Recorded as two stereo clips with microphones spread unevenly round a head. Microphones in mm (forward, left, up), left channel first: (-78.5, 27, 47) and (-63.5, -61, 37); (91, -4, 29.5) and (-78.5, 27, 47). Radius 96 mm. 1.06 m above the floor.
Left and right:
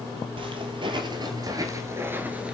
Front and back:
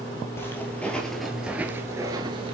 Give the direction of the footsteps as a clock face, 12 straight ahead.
3 o'clock.